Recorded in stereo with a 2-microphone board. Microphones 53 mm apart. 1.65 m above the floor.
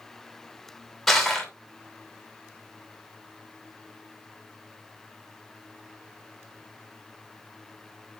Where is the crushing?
Centre (ahead or behind), 3 m.